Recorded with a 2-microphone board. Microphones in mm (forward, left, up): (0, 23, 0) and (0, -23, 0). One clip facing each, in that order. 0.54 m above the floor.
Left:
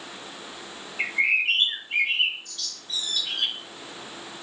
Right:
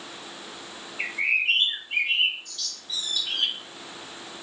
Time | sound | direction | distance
1.0 | a bird | 40° left (ahead or behind) | 2 m